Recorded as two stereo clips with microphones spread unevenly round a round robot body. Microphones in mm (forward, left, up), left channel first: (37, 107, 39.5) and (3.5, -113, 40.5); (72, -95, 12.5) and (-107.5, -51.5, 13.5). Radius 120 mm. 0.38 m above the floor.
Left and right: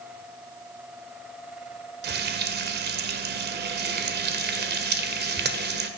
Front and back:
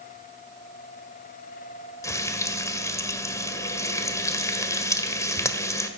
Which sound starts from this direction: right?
Frying, at 2.0 s.